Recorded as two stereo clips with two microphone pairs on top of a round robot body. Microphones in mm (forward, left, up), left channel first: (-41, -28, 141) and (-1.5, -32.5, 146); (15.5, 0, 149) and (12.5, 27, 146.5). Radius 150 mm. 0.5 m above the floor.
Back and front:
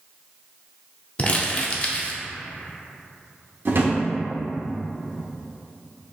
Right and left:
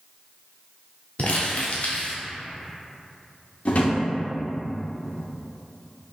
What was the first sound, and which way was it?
Crumpling, 125° right.